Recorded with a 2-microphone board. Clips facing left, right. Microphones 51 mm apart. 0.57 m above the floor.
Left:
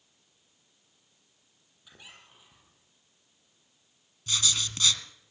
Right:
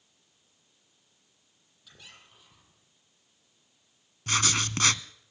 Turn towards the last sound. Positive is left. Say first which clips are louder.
# right 3 dB
turn(degrees=-55)  # may be behind; listen again after turning